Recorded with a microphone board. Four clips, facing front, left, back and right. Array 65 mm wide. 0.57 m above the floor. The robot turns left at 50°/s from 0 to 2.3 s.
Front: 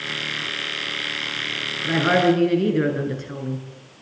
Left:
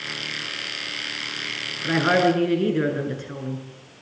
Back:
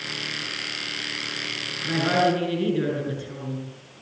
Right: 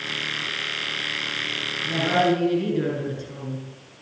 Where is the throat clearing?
I don't hear throat clearing.